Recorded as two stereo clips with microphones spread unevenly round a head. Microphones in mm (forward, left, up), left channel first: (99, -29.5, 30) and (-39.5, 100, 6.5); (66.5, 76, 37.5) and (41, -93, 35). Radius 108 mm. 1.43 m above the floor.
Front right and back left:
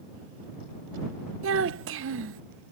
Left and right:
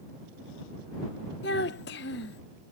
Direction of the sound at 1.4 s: 125° left.